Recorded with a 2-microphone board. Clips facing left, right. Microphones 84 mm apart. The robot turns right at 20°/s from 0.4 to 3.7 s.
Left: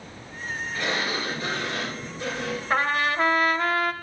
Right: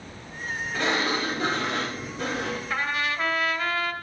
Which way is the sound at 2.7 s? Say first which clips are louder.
Left 7 dB; 50° left (ahead or behind).